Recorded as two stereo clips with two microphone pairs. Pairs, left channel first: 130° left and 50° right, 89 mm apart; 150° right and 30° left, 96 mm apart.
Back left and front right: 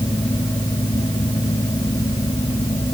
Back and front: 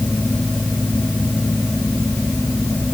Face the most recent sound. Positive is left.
No sound to turn to.